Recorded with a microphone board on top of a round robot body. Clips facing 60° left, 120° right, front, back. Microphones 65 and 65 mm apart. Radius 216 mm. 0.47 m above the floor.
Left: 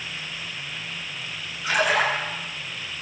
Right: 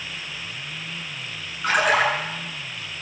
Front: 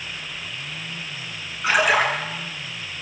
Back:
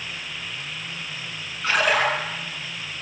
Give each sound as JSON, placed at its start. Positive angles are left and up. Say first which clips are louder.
{"t": 1.6, "sound": "a splash", "louder": "right 2 dB, front 2 dB", "azimuth_deg": -80, "distance_m": 8.5}